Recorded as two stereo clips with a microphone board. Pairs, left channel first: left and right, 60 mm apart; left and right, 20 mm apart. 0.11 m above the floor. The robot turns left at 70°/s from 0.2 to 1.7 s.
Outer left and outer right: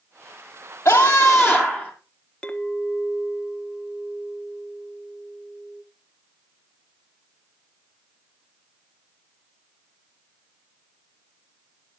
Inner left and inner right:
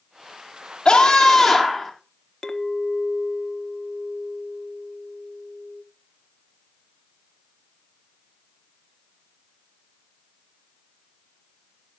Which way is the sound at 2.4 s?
20° left (ahead or behind).